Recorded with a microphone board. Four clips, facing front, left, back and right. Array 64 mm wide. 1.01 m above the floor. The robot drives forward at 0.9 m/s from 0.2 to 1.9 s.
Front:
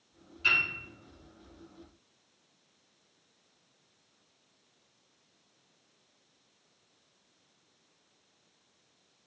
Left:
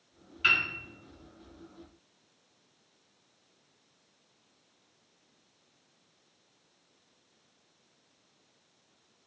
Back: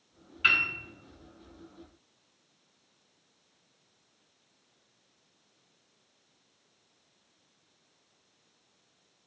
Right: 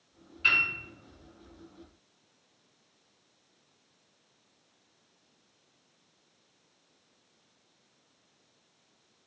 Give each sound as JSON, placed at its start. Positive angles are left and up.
{"t": 0.4, "sound": "a piano", "azimuth_deg": 155, "distance_m": 2.0}